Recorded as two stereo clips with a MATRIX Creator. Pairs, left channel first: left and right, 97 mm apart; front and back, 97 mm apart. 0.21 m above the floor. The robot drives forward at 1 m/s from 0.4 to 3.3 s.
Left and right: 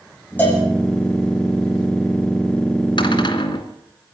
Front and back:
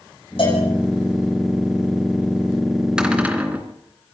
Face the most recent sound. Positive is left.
turn(degrees=110)